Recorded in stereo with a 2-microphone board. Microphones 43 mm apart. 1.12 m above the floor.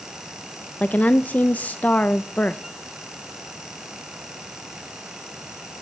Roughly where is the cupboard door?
No cupboard door in this recording.